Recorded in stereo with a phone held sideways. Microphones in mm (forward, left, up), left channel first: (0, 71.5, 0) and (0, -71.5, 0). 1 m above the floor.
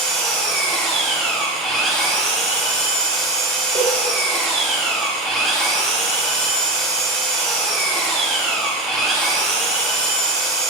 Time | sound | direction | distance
0.0 | an engine running | 5° left (ahead or behind) | 1.9 m
3.8 | a cowbell | 40° right (ahead or behind) | 1.2 m